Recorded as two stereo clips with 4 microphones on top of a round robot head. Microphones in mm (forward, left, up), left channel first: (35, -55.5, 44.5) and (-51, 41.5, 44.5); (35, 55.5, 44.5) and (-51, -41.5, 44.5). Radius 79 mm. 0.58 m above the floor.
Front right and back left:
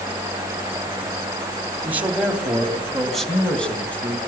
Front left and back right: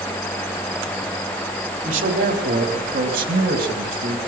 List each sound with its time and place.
1.9 s a man speaking: 150° right, 3.5 m; by 4.2 s 125° right, 4 m